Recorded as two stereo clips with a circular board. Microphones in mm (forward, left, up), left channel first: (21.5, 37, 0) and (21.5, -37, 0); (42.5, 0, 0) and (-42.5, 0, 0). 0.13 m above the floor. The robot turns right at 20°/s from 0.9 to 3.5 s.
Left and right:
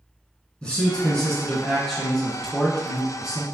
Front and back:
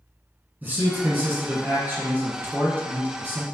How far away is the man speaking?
About 1.4 m.